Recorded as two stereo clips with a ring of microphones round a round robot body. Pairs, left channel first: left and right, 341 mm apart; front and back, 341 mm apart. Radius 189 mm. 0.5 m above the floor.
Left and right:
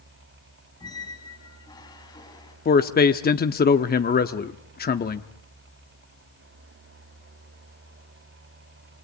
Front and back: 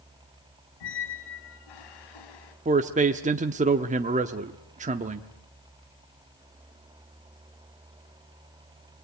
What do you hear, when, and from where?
0.8 s a squeak: 10° left, 3 m
2.6 s a man speaking: 130° left, 0.8 m